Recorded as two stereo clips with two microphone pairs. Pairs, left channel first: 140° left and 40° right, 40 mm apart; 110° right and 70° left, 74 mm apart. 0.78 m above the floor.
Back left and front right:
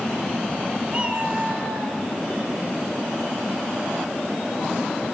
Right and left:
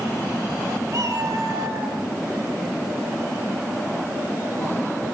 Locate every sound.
0.9 s a cat meowing: 25° left, 5 m